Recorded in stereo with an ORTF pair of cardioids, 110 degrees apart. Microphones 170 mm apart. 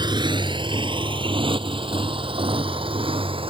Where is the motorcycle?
25° right; by 3.5 s 30° right.